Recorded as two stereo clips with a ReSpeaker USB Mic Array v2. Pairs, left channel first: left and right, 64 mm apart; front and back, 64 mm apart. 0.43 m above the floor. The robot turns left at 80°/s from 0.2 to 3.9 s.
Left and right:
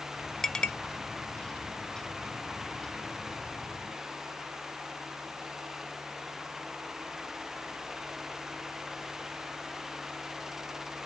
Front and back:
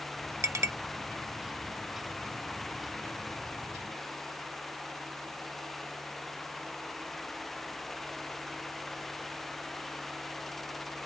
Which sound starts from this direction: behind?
A clink, at 0.4 s.